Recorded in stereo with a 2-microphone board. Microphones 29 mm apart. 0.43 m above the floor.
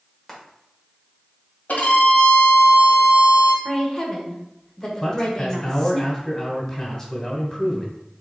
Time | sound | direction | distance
0.3 | frying | 10° left (ahead or behind) | 1.5 m
1.7 | a violin | 75° left (ahead or behind) | 1.5 m
3.6 | a woman speaking | 20° left (ahead or behind) | 1.2 m
5.0 | a man speaking | 20° left (ahead or behind) | 1.4 m